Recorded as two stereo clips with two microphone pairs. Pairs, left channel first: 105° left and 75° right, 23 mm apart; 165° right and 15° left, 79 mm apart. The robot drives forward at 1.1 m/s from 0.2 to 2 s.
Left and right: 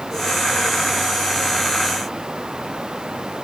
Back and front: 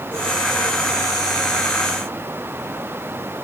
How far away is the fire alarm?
No fire alarm in this recording.